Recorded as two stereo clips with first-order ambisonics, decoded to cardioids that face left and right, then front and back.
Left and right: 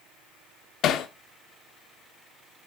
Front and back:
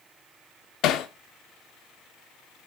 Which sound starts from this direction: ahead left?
Hammering, at 0.8 s.